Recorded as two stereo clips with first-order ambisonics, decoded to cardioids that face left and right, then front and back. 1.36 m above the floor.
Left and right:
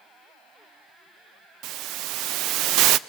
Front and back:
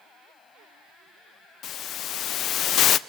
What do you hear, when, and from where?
1.6 s a hiss: 50° right, 0.5 m